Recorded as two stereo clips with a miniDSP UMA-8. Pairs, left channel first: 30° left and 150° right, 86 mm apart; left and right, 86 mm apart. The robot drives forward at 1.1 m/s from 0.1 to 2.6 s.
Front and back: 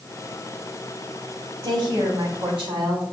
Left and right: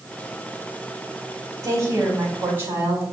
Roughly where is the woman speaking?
Behind right.